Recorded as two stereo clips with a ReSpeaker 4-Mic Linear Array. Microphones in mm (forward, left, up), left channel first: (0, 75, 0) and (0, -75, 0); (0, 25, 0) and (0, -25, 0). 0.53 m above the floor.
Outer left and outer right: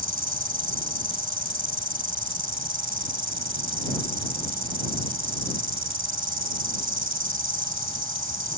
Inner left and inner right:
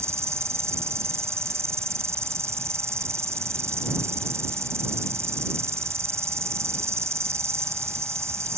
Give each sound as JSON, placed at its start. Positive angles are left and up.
{"t": 0.0, "sound": "an insect", "side_deg": -70}